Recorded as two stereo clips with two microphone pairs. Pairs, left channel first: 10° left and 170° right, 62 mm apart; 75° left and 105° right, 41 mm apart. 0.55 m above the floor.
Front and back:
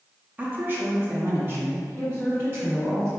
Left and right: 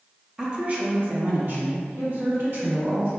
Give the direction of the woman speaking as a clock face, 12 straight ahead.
5 o'clock.